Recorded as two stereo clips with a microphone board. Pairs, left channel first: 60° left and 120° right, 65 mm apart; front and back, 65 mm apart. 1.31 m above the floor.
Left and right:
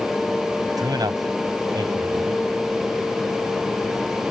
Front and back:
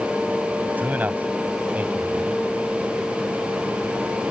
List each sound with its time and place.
0.8 s a man speaking: 115° right